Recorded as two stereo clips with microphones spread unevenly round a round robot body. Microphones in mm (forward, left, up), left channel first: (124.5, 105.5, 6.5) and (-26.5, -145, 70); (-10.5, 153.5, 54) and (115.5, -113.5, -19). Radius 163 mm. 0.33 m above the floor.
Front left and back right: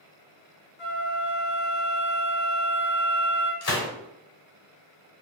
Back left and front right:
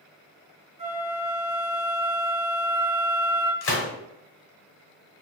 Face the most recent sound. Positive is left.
turn(degrees=65)